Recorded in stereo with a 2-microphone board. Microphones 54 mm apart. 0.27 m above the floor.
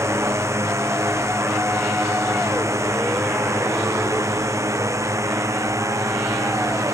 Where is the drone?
60° right (ahead or behind); by 6.9 s 70° right (ahead or behind).